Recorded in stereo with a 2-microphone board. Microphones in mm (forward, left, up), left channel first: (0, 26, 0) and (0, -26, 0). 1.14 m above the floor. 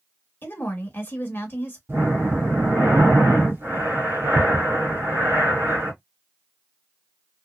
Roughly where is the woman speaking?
Left.